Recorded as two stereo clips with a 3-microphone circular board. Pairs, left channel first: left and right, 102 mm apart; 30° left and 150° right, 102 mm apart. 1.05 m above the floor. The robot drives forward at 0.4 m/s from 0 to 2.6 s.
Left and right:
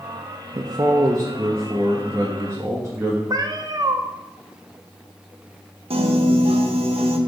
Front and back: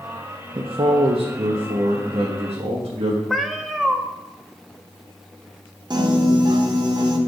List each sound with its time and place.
0.6 s a man speaking: 130° right, 0.5 m; by 3.2 s 165° right, 1.2 m
3.3 s a cat meowing: 65° right, 0.6 m
5.9 s a piano: 105° right, 0.7 m